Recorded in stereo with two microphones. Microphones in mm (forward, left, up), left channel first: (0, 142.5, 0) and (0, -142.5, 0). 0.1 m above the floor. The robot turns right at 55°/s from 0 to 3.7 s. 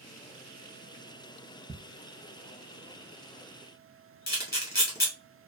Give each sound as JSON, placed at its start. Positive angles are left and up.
{"t": 1.7, "sound": "ticking", "side_deg": -15, "distance_m": 0.5}
{"t": 4.3, "sound": "a camera shutter", "side_deg": 35, "distance_m": 1.4}